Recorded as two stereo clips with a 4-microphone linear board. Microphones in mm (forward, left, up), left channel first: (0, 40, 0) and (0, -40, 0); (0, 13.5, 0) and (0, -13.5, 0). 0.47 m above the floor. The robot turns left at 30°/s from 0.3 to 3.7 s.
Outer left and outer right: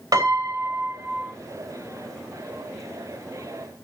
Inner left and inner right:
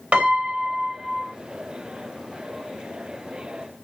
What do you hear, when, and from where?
0.1 s a piano: 50° right (ahead or behind), 3 m; by 1.3 s 25° right (ahead or behind), 3 m